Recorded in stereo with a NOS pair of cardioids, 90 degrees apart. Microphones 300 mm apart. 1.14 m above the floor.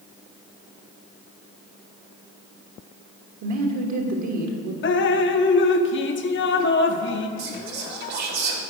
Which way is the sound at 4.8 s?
40° left.